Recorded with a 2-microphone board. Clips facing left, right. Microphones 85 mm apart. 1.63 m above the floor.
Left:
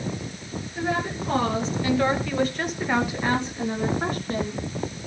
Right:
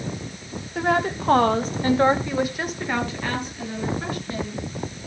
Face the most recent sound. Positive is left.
turn(degrees=45)  # may be behind; listen again after turning